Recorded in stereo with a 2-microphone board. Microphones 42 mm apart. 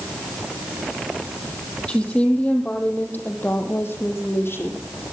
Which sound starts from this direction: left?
A woman speaking, at 1.9 s.